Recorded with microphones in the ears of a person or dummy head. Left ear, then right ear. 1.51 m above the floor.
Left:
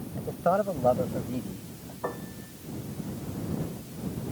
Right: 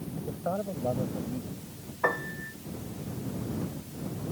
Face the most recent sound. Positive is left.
turn(degrees=-70)  # may be behind; listen again after turning